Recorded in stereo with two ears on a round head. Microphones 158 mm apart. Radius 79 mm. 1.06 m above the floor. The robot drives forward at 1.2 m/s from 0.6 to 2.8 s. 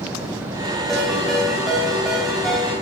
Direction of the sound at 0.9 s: Centre (ahead or behind).